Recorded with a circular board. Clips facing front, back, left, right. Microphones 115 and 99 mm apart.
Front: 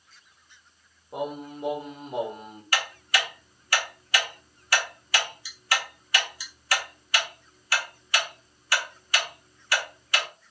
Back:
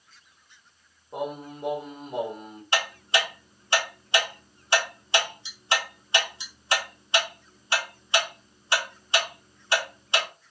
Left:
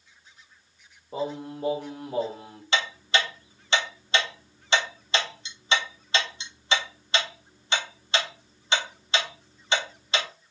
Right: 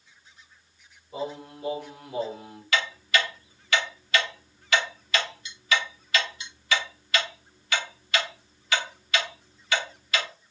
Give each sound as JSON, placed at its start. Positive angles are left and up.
{"t": 1.1, "sound": "singing", "azimuth_deg": 85, "distance_m": 0.9}
{"t": 2.7, "sound": "ticking", "azimuth_deg": 130, "distance_m": 0.6}